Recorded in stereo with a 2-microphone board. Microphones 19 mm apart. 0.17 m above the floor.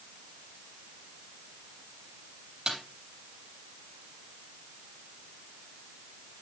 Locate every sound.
2.7 s a snare drum: 35° right (ahead or behind), 3.5 m